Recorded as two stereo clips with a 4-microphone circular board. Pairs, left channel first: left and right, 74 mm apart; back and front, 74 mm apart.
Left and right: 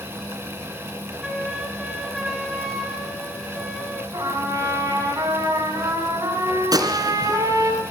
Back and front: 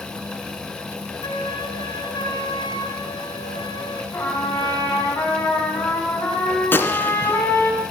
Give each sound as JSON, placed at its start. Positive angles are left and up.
{"t": 1.2, "sound": "a flute", "azimuth_deg": -175, "distance_m": 2.5}
{"t": 4.1, "sound": "a trumpet", "azimuth_deg": -130, "distance_m": 5.5}
{"t": 6.7, "sound": "a gunshot", "azimuth_deg": -120, "distance_m": 1.9}